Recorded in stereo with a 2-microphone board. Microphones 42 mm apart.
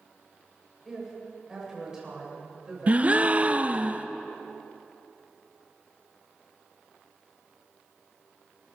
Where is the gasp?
30° right (ahead or behind), 0.5 m.